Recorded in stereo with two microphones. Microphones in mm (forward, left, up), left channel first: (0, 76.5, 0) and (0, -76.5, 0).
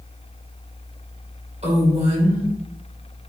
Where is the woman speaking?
45° right (ahead or behind), 1.8 m.